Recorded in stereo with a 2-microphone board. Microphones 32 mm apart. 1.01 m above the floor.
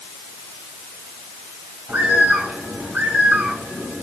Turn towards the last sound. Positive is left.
turn(degrees=-75)  # may be behind; listen again after turning